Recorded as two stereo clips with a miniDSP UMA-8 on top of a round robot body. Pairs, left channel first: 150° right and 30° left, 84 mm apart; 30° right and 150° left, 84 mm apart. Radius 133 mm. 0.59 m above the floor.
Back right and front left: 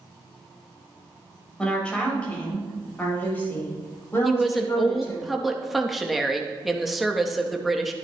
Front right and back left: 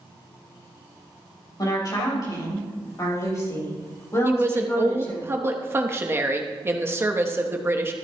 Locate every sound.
1.6 s a woman speaking: 70° right, 4.5 m; by 5.2 s 95° right, 5 m
4.2 s a woman speaking: 120° left, 1.0 m